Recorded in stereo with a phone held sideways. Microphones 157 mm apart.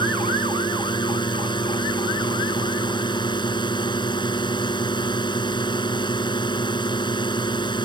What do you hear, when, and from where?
0.0 s a drone: 30° left (ahead or behind)